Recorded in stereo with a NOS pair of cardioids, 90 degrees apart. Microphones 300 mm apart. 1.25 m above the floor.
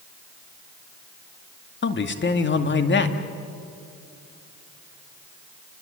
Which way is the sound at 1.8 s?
40° left.